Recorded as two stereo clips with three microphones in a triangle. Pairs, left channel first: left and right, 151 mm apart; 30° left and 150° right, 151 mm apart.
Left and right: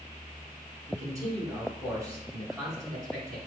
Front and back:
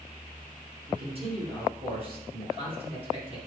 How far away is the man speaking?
About 2 m.